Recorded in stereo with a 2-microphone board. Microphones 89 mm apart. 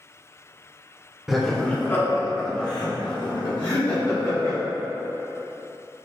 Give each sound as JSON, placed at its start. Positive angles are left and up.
{"t": 1.3, "sound": "laughter", "side_deg": -5, "distance_m": 0.8}